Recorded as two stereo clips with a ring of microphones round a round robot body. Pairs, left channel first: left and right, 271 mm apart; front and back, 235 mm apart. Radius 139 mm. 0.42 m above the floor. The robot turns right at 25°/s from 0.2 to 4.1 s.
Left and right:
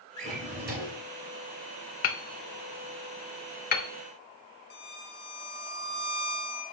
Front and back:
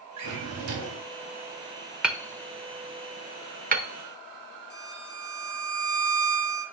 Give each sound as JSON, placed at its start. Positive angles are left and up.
{"t": 0.2, "sound": "a drawer", "azimuth_deg": -160, "distance_m": 2.5}
{"t": 2.0, "sound": "hammering", "azimuth_deg": 95, "distance_m": 1.1}
{"t": 4.7, "sound": "a violin", "azimuth_deg": 40, "distance_m": 1.6}